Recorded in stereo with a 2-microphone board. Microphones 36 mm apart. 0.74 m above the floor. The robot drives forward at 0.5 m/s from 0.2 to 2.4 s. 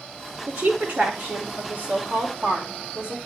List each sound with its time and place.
0.5 s a woman speaking: 70° right (ahead or behind), 2 m; by 3.2 s 55° right (ahead or behind), 2.5 m